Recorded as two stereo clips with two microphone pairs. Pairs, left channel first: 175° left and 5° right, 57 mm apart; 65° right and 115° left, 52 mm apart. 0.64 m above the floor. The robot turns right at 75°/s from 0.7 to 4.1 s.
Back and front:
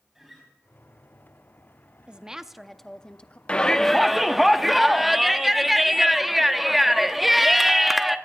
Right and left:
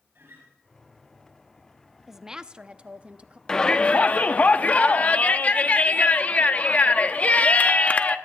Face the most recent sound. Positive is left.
turn(degrees=-90)